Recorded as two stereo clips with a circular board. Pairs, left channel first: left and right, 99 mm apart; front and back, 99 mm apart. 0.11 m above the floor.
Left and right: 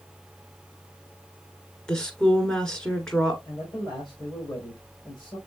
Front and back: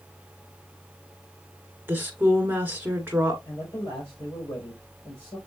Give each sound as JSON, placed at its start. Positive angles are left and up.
{"t": 1.9, "sound": "a woman speaking", "azimuth_deg": 160, "distance_m": 1.3}
{"t": 3.5, "sound": "a man speaking", "azimuth_deg": 55, "distance_m": 3.5}